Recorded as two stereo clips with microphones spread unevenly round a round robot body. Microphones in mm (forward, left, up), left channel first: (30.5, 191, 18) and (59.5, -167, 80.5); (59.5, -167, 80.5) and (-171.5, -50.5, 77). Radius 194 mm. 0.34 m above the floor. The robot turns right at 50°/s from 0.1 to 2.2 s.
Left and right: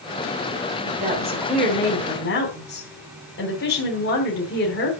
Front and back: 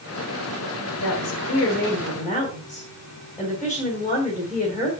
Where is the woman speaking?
10° right, 3 m; by 4.9 s 50° left, 3 m.